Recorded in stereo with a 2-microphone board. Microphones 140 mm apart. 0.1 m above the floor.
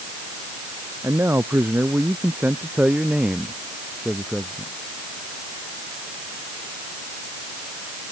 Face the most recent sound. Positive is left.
turn(degrees=0)  # may be behind; listen again after turning